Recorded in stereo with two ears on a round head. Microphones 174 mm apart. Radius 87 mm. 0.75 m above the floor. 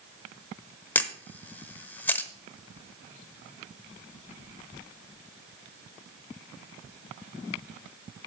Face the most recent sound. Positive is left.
turn(degrees=10)  # may be behind; listen again after turning